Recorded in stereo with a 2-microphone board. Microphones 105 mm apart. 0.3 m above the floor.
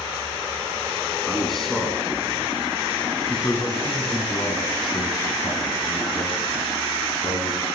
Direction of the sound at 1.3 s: Centre (ahead or behind).